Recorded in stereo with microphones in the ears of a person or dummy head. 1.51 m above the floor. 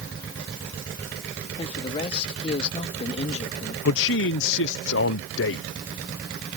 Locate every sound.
1.6 s a man speaking: 30° left (ahead or behind); by 3.8 s 35° left (ahead or behind)
3.9 s a man speaking: 65° left (ahead or behind)